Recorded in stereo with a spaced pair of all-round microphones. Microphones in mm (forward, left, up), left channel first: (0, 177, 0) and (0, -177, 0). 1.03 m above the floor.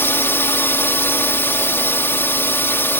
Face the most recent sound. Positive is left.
turn(degrees=5)  # may be behind; listen again after turning